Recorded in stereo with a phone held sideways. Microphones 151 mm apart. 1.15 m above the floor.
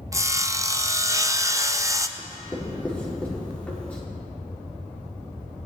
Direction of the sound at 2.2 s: 10° left (ahead or behind).